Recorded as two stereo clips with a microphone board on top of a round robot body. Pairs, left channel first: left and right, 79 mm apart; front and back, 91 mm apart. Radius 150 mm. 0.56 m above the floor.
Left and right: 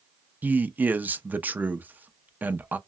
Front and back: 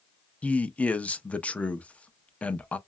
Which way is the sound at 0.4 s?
55° right.